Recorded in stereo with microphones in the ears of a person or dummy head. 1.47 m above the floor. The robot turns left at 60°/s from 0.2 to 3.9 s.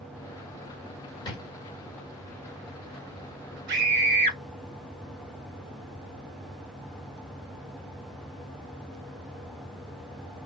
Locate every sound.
1.2 s a drawer: 25° left (ahead or behind), 1.7 m; by 1.4 s 15° left (ahead or behind), 1.7 m
3.7 s a scream: 60° right (ahead or behind), 1.5 m; by 4.4 s 45° right (ahead or behind), 1.5 m